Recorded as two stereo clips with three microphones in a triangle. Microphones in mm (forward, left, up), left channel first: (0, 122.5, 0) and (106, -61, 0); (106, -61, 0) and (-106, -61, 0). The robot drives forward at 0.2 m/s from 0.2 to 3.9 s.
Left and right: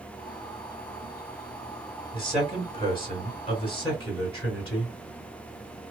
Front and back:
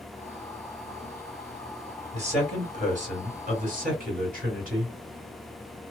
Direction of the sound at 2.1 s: 165° left.